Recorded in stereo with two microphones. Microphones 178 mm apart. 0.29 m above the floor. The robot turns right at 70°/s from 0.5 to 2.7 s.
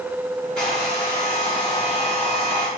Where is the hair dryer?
165° left, 1.9 m; by 2.7 s 45° right, 1.9 m.